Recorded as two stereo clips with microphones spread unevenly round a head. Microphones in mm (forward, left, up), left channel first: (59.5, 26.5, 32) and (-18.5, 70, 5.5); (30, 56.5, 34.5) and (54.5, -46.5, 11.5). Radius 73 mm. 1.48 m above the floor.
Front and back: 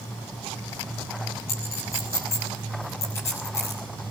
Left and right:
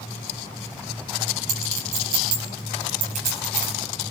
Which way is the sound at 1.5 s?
95° right.